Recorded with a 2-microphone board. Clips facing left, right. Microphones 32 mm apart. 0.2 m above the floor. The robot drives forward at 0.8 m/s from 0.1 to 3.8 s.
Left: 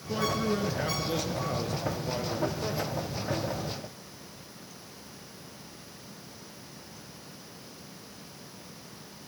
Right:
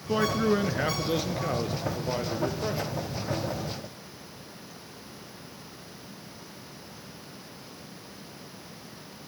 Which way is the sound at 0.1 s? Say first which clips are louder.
Right 4 dB; 30° right (ahead or behind).